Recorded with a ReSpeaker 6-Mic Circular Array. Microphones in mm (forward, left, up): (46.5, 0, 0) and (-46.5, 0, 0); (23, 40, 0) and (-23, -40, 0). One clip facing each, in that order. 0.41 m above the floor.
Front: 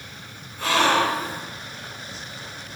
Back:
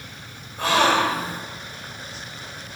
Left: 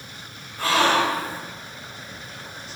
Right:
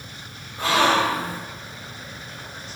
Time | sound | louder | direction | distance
0.6 | a gasp | back 1 dB, right 1 dB | 175° left | 2.5 m